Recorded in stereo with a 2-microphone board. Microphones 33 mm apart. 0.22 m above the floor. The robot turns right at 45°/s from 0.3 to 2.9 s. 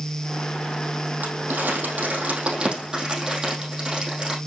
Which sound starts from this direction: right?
Crumpling, at 1.2 s.